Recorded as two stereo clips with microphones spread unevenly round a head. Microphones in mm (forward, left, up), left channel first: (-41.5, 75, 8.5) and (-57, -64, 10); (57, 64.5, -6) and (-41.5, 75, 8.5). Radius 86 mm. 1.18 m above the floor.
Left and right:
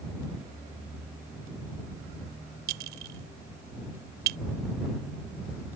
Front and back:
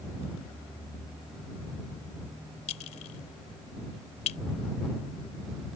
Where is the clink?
55° right.